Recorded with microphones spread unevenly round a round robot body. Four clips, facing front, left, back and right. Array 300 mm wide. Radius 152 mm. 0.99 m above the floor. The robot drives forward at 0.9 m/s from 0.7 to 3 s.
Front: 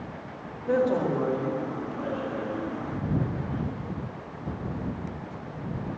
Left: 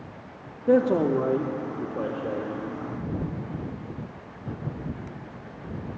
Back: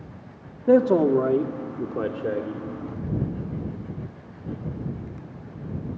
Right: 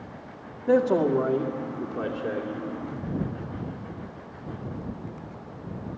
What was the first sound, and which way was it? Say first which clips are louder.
A man speaking: left 1 dB, back 7 dB; 160° left.